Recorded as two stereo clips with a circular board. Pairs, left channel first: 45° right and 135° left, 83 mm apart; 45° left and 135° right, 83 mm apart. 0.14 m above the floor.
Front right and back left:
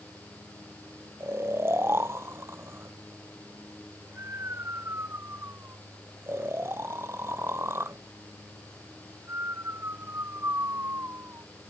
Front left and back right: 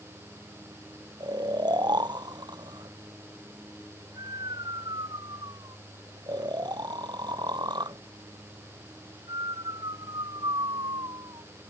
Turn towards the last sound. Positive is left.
turn(degrees=-165)